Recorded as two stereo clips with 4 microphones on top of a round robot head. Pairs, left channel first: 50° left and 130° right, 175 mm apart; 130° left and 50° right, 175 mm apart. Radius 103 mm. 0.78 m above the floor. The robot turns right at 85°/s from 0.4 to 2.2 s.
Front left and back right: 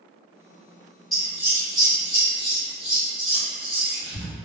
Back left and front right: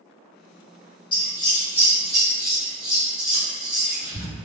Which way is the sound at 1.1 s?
135° left.